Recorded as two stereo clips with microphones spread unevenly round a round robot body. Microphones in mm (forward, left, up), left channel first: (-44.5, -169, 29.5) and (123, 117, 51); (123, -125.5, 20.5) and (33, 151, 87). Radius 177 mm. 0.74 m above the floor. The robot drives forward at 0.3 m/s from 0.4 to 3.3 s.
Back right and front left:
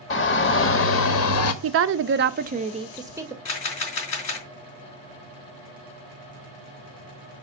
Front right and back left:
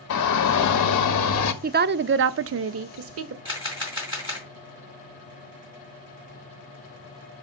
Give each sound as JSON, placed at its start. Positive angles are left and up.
{"t": 0.1, "sound": "a shout", "azimuth_deg": -65, "distance_m": 1.1}
{"t": 1.6, "sound": "a woman speaking", "azimuth_deg": 45, "distance_m": 0.5}
{"t": 3.5, "sound": "a camera shutter", "azimuth_deg": -175, "distance_m": 2.5}